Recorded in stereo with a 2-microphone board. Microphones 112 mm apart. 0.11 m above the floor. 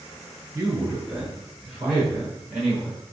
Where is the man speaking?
20° right (ahead or behind), 1.4 m; by 3.0 s 25° left (ahead or behind), 2 m.